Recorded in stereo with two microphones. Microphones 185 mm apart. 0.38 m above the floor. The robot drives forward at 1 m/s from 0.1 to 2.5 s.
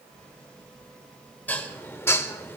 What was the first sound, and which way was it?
Dishes clattering, 10° left (ahead or behind).